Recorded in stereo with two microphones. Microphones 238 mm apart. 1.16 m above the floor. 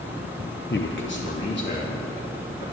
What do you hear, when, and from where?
0.7 s a man speaking: 50° left (ahead or behind), 0.8 m; by 2.6 s 45° left (ahead or behind), 2.5 m